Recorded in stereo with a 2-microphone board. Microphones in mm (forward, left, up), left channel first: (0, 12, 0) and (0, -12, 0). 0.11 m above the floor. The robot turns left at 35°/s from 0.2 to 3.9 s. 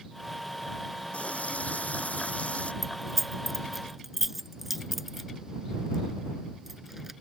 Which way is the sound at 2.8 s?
5° left (ahead or behind).